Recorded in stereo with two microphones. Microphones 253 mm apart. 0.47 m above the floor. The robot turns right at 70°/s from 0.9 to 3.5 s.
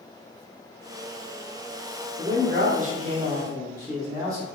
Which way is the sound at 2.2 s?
115° right.